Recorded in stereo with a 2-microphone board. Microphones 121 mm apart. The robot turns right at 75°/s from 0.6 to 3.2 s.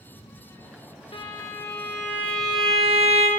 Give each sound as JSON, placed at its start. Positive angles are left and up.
{"t": 1.1, "sound": "a violin", "azimuth_deg": 120, "distance_m": 0.5}